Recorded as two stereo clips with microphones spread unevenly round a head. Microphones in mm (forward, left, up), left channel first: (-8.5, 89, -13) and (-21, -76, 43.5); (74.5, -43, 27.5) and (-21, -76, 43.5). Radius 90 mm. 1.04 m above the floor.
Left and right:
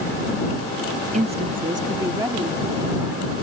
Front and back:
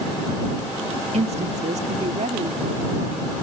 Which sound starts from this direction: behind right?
A woman speaking, at 1.1 s.